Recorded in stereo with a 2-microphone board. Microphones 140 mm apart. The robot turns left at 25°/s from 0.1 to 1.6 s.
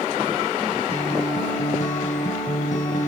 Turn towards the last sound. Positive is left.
turn(degrees=65)  # may be behind; listen again after turning